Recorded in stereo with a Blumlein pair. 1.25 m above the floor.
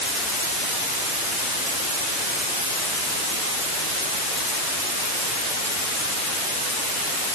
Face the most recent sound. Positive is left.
No sound to turn to.